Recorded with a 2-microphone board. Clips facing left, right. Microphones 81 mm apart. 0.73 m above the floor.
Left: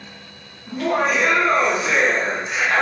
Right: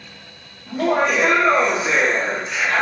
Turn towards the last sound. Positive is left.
turn(degrees=30)  # may be behind; listen again after turning